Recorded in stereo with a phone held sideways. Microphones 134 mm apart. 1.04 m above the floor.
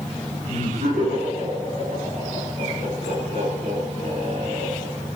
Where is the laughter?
80° right, 9.5 m.